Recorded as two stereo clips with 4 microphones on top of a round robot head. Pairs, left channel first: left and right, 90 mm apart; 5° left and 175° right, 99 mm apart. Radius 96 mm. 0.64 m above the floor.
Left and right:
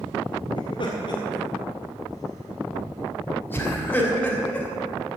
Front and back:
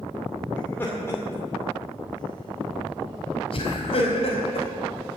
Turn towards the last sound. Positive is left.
turn(degrees=10)